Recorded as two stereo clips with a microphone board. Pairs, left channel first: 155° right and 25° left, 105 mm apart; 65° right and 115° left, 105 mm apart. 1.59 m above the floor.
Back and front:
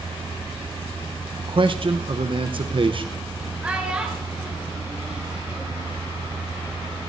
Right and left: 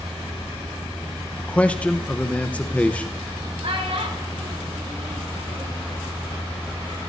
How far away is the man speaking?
About 0.8 m.